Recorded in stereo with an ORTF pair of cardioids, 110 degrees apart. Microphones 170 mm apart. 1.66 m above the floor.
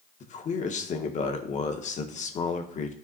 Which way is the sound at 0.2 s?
45° left.